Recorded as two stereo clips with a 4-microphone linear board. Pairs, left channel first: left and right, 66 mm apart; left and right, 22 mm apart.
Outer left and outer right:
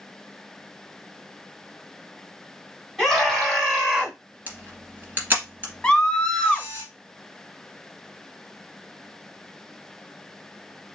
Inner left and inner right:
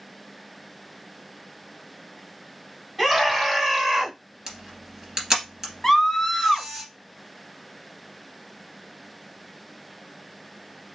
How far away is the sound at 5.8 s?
About 1.0 m.